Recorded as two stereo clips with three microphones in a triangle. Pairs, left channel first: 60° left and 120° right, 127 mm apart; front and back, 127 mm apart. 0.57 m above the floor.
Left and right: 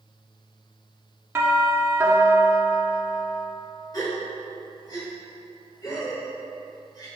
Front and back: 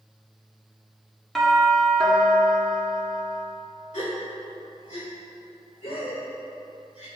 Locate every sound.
1.4 s a doorbell: 80° right, 1.6 m
3.9 s a gasp: 5° left, 2 m